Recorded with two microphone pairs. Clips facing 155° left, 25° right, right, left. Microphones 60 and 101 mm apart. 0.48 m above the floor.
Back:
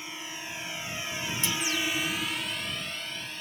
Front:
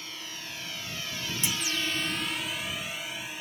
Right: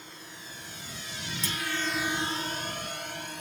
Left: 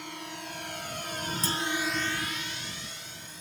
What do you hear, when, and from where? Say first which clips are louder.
0.0 s a drone: back 2 dB, left 7 dB; 85° left; by 3.4 s 105° right
1.4 s a clunk: back 1 dB, left 3 dB; 40° left